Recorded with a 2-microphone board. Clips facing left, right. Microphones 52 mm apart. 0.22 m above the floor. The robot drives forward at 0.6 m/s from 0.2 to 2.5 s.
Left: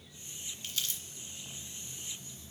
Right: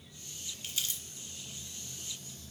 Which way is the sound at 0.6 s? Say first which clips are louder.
Even; 10° right (ahead or behind).